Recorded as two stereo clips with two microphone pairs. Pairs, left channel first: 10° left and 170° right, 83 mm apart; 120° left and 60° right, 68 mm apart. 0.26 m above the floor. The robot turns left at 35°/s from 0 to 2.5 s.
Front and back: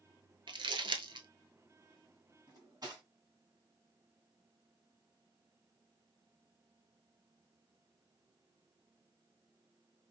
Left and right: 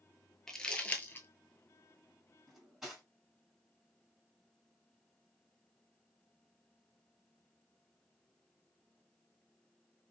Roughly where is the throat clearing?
No throat clearing in this recording.